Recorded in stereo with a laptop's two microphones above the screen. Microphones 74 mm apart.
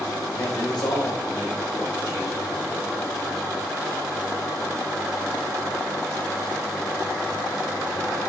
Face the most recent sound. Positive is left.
turn(degrees=55)  # may be behind; listen again after turning